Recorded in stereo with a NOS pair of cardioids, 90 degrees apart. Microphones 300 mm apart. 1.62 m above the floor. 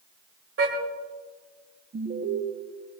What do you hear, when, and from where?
0.6 s a car horn: 50° right, 2.5 m
1.9 s an alarm: 35° right, 4.5 m